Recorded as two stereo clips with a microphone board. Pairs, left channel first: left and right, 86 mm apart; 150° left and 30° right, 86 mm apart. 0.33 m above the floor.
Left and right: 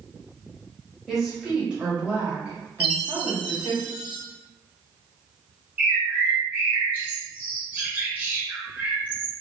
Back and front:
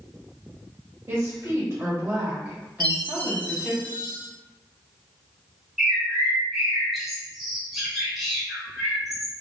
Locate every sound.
1.1 s a woman speaking: straight ahead, 1.4 m; by 3.8 s 105° right, 1.5 m
2.8 s a chime: 10° right, 1.1 m
5.8 s a bird: 115° right, 0.9 m